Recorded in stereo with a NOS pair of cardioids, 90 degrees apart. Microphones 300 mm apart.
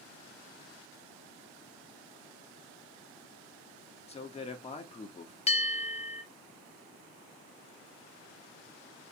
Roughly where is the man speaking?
Ahead.